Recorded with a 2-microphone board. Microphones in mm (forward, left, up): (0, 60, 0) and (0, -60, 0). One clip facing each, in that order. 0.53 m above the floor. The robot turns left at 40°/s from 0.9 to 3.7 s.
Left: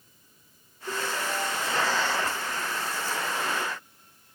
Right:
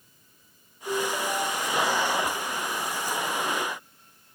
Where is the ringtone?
65° right, 2 m; by 1.8 s 100° right, 2 m.